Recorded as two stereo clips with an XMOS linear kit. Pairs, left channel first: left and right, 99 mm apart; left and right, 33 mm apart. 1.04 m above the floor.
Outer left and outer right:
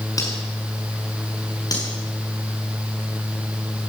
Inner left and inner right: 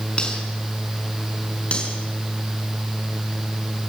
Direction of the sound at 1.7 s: 40° left (ahead or behind).